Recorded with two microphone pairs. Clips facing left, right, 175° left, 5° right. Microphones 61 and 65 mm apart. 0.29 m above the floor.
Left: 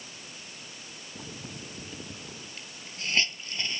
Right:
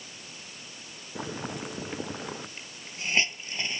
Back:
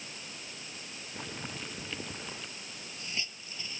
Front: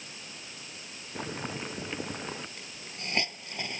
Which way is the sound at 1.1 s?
70° right.